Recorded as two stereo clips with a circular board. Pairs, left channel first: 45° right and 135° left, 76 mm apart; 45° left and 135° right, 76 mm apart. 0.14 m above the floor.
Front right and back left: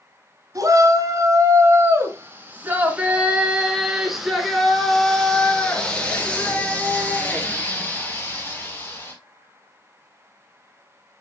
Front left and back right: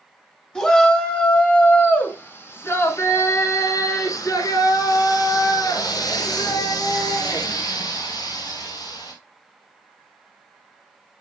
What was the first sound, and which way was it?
A shout, 120° left.